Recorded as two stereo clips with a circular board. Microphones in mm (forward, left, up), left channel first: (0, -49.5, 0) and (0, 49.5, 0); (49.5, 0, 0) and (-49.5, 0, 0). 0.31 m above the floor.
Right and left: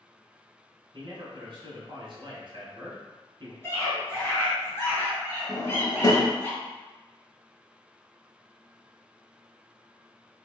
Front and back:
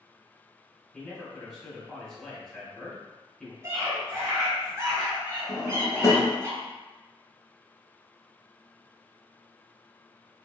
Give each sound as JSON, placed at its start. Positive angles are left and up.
{"t": 0.9, "sound": "a man speaking", "azimuth_deg": 85, "distance_m": 1.7}
{"t": 3.6, "sound": "a scream", "azimuth_deg": -135, "distance_m": 1.6}
{"t": 5.5, "sound": "a drawer", "azimuth_deg": -50, "distance_m": 0.6}